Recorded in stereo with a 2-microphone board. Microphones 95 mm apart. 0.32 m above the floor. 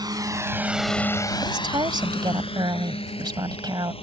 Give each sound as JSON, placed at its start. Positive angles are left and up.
{"t": 0.0, "sound": "a drone", "side_deg": -45}
{"t": 1.4, "sound": "a woman speaking", "side_deg": -50}